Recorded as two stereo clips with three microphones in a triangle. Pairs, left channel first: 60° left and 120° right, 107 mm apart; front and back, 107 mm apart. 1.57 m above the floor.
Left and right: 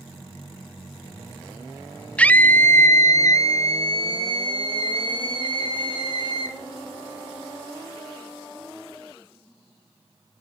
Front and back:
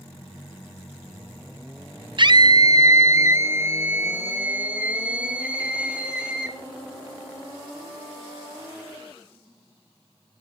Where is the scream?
135° left, 0.7 m; by 6.6 s 100° left, 3 m.